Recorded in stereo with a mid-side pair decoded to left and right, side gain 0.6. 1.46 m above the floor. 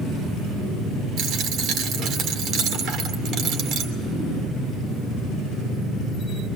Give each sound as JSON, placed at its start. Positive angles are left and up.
{"t": 1.2, "sound": "a dropped coin", "azimuth_deg": -60, "distance_m": 2.5}